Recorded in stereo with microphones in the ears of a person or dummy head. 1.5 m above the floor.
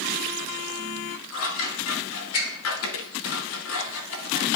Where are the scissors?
80° left, 2.0 m.